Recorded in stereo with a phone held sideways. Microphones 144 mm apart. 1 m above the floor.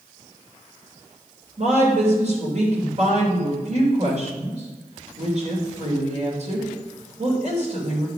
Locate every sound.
1.6 s a woman speaking: 50° right (ahead or behind), 3 m